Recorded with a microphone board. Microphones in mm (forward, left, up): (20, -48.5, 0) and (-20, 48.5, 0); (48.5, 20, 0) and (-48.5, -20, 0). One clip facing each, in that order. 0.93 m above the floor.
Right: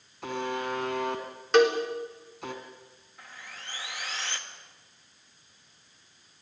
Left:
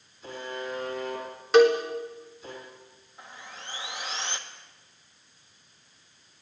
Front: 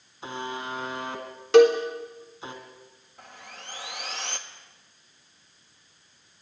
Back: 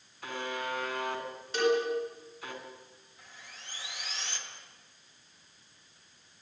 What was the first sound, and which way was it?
A buzzer, 45° right.